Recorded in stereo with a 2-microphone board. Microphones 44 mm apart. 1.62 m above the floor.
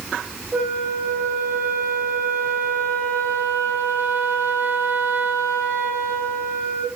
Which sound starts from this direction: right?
A flute, at 0.5 s.